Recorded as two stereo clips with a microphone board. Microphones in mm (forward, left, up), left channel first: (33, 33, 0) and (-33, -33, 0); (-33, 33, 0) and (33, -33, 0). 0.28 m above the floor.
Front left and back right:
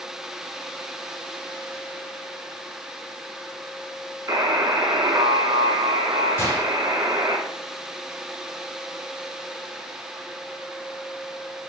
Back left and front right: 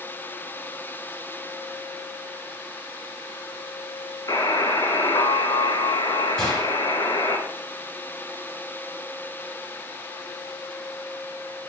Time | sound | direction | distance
4.3 | a buzzer | 175° left | 0.5 m
6.4 | a gunshot | 65° left | 1.1 m